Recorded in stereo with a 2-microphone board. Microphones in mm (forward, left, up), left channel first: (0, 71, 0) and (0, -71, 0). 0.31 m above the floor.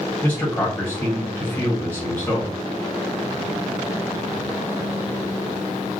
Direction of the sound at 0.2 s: 10° left (ahead or behind).